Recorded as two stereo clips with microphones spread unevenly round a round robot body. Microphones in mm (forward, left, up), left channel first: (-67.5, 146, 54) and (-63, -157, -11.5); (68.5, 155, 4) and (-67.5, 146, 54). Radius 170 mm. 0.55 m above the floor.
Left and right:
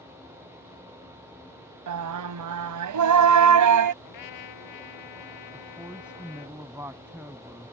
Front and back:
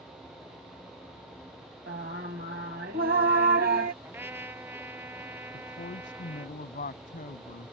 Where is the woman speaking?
5° right.